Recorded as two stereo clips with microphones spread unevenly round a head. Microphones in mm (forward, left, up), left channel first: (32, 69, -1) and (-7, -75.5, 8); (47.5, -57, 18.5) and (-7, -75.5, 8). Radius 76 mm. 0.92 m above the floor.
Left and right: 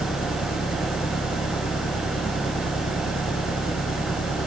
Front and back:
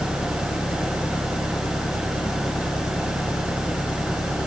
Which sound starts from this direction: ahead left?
An engine running, at 0.0 s.